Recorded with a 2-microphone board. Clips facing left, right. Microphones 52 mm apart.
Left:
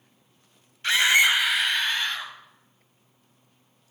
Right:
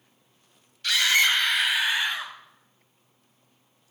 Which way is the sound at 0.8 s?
30° left (ahead or behind).